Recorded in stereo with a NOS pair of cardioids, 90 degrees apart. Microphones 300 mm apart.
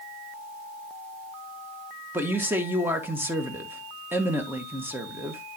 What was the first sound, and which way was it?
A man speaking, 5° right.